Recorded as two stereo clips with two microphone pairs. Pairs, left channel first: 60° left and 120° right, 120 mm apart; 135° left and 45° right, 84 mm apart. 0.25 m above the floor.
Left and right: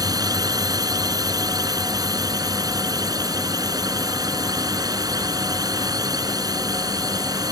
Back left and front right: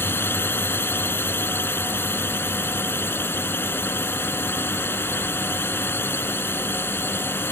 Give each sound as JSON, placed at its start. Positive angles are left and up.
{"t": 0.0, "sound": "a drone", "azimuth_deg": -170}